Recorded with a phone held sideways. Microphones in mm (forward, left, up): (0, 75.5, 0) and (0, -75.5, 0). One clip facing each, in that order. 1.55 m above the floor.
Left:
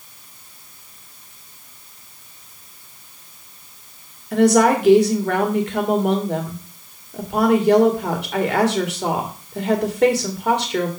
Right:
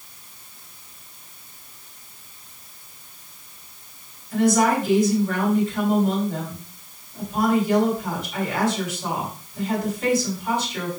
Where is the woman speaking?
70° left (ahead or behind), 1.8 m.